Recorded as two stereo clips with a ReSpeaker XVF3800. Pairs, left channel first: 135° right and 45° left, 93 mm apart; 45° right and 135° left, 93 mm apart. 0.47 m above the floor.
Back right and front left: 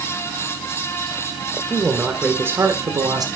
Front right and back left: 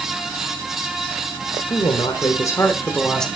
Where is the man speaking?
40° right, 1.7 m; by 3.3 s 40° left, 1.5 m.